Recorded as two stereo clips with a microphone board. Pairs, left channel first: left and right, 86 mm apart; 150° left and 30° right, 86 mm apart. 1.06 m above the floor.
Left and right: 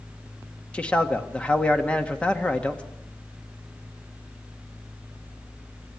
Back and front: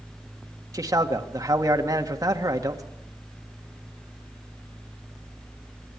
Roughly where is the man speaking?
Ahead.